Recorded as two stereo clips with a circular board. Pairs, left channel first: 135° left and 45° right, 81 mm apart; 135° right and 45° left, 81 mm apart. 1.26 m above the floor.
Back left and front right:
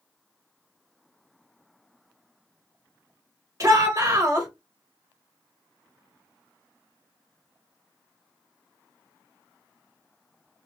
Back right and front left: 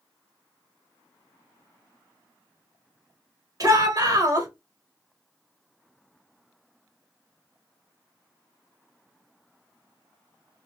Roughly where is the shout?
Ahead.